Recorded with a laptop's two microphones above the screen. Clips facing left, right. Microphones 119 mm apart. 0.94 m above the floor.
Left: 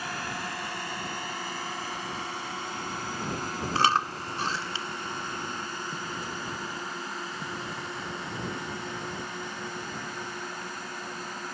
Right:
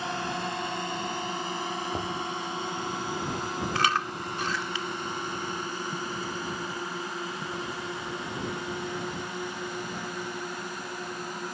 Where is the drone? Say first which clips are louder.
Right 4 dB; 25° right (ahead or behind); by 11.5 s 15° right (ahead or behind).